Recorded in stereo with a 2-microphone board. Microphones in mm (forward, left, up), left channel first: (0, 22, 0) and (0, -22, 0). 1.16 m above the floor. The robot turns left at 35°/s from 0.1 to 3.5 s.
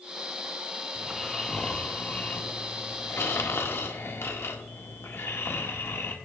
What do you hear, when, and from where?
0.9 s snoring: 175° right, 1.7 m; by 6.2 s 95° left, 1.7 m